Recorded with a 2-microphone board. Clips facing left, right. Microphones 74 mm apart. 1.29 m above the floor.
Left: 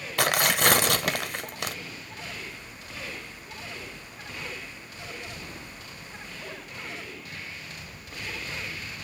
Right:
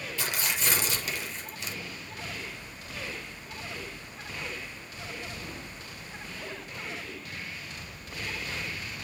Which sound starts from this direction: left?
Tearing paper, at 0.2 s.